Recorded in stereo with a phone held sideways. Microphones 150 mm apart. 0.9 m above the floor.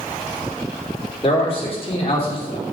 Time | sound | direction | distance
1.2 | a man speaking | 40° left (ahead or behind) | 2.5 m